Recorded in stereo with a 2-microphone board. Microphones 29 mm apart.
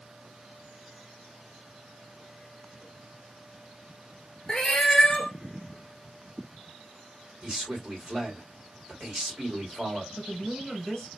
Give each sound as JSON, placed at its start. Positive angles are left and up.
{"t": 4.5, "sound": "a cat meowing", "side_deg": 20, "distance_m": 0.8}
{"t": 7.4, "sound": "a man speaking", "side_deg": -20, "distance_m": 2.0}
{"t": 10.2, "sound": "a woman speaking", "side_deg": 20, "distance_m": 2.0}